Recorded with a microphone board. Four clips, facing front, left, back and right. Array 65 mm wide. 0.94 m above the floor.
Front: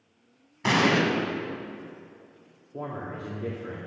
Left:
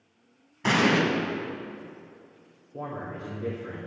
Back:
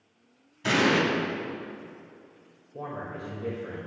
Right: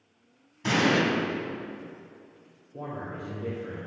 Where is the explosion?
40° left, 2 m.